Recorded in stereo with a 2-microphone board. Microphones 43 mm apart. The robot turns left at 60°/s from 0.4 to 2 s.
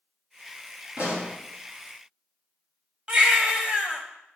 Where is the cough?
I don't hear a cough.